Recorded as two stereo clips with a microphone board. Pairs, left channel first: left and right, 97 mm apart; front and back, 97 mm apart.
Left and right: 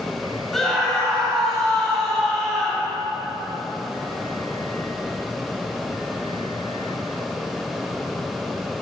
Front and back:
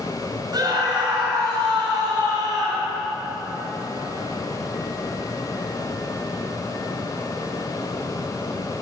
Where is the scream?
175° left, 2.0 m.